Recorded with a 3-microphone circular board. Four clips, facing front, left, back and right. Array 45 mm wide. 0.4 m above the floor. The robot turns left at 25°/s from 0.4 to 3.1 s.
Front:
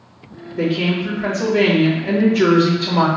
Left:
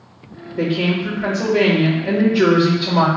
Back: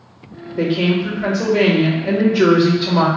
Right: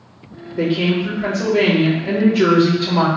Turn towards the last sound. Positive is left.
turn(degrees=140)